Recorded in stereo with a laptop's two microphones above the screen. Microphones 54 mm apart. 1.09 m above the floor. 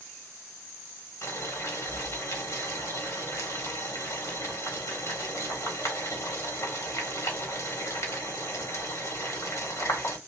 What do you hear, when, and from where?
1.2 s boiling: 60° left (ahead or behind), 1.7 m